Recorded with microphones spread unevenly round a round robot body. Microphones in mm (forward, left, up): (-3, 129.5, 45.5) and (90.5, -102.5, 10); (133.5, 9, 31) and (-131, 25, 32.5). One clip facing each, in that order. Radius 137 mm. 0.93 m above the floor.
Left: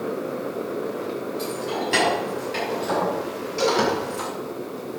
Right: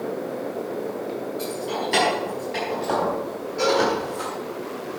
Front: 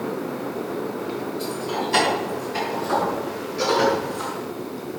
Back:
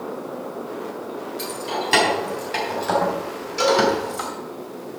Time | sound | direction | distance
1.4 | keys jangling | 165° right | 6 m
3.6 | a cowbell | 160° left | 6 m